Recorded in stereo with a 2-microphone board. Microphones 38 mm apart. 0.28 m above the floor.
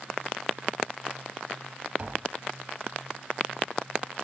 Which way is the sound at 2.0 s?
30° right (ahead or behind).